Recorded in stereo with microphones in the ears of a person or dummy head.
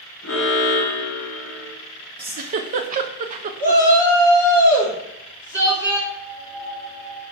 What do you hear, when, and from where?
0.2 s an alarm: 65° left (ahead or behind), 1.8 m
2.2 s a giggle: 45° right (ahead or behind), 0.5 m
3.6 s a shout: 20° right (ahead or behind), 2.5 m
6.1 s a piano: 40° right (ahead or behind), 1.8 m